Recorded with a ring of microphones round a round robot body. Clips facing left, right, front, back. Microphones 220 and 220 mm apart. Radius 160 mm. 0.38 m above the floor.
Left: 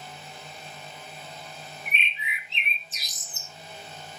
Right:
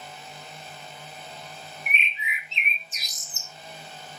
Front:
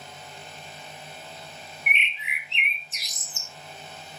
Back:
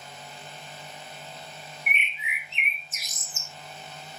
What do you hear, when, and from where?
1.9 s a bird: 30° left, 1.4 m